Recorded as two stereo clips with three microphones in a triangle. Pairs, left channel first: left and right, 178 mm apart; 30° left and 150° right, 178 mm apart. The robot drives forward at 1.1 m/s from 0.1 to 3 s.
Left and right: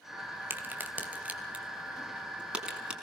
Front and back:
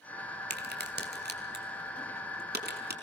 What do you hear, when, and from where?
0.5 s a crack: 170° right, 1.9 m; by 2.9 s 175° right, 4.5 m